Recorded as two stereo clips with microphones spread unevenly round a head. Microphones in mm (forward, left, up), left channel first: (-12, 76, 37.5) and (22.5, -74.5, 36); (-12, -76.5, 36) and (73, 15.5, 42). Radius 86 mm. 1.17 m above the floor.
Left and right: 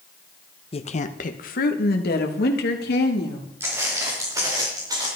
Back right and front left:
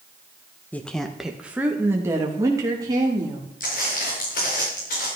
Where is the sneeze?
I don't hear a sneeze.